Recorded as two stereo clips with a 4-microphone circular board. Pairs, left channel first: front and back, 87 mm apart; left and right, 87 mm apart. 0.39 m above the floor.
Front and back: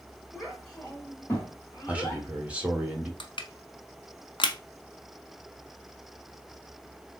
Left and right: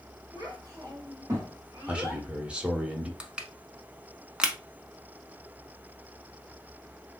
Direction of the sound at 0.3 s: 95° right.